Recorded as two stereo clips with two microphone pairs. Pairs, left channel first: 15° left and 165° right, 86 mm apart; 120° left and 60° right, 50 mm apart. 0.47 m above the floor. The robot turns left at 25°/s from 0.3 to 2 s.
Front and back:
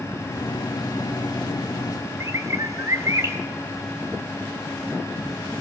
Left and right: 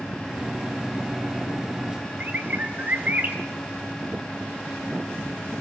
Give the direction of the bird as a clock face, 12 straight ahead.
4 o'clock.